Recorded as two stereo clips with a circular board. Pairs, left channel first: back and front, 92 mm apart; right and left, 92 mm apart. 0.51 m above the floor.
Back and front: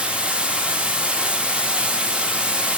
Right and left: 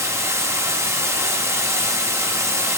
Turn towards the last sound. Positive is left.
turn(degrees=70)